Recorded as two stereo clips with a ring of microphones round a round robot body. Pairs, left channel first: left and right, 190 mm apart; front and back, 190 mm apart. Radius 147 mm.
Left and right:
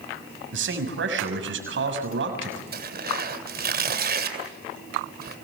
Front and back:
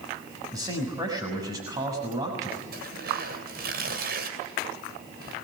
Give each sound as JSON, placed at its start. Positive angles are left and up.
{"t": 0.5, "sound": "a man speaking", "azimuth_deg": -105, "distance_m": 6.0}
{"t": 2.7, "sound": "tearing paper", "azimuth_deg": -125, "distance_m": 3.0}